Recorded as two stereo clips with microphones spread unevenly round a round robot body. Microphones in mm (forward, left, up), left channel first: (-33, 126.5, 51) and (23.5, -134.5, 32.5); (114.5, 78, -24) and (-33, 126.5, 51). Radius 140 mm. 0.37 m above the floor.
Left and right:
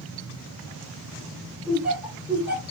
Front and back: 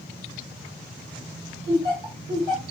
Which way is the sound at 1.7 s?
155° right.